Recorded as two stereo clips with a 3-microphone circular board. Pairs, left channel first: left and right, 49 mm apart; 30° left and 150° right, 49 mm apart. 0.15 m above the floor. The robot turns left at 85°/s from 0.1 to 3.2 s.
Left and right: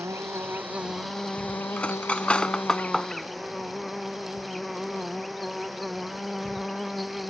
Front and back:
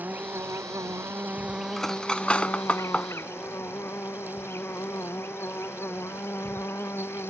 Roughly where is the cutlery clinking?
Left.